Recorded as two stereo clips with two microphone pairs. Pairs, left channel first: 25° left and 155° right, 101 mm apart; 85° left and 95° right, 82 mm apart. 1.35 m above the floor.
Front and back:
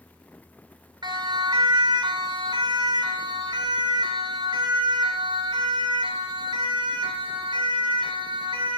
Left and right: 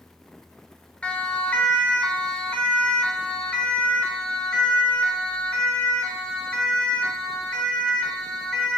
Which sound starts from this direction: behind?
A siren, at 1.0 s.